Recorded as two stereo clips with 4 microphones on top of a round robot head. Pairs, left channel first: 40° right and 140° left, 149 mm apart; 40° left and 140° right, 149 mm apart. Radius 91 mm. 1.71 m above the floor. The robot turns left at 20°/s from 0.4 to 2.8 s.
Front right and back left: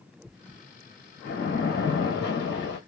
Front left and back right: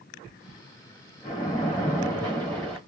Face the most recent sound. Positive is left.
turn(degrees=-50)